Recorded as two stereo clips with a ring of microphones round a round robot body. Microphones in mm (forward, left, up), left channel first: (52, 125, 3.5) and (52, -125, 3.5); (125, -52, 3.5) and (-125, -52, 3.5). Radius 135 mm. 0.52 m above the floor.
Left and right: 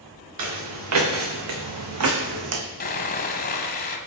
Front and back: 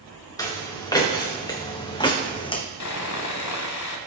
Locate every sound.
0.4 s footsteps: 75° right, 3.5 m; by 2.6 s 70° right, 1.5 m
2.8 s sawing: 35° left, 1.4 m